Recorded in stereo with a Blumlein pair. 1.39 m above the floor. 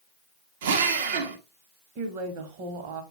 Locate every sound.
0.6 s a drill: 55° right, 1.6 m
2.0 s a woman speaking: 45° right, 1.9 m